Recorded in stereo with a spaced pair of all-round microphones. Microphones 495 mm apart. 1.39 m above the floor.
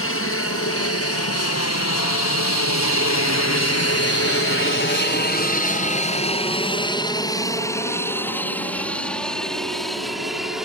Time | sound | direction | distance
0.0 | an aircraft | 25° left (ahead or behind) | ?